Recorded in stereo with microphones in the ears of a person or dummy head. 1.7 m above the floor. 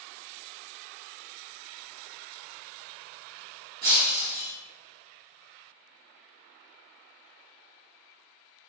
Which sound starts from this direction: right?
Breaking glass, at 3.8 s.